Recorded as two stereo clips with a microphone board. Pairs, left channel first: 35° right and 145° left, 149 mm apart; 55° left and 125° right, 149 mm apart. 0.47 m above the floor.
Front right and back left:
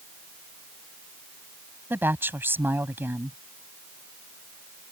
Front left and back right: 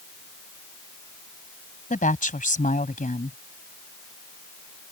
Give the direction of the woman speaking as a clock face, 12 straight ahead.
10 o'clock.